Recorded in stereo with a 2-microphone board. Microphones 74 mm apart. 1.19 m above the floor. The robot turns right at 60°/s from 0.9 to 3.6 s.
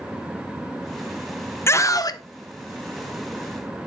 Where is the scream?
35° left, 0.9 m; by 2.2 s 70° left, 0.9 m.